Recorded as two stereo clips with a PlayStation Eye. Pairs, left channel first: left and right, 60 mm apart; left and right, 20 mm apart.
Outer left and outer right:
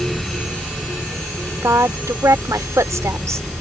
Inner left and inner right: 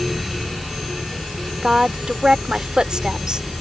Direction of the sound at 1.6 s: 55° right (ahead or behind).